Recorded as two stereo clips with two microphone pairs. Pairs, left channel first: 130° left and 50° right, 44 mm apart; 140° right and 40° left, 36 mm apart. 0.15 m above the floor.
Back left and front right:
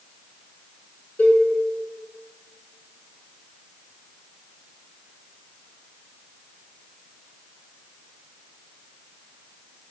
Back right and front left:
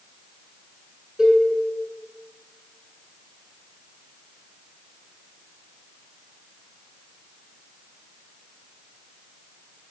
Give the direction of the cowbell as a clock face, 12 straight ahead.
9 o'clock.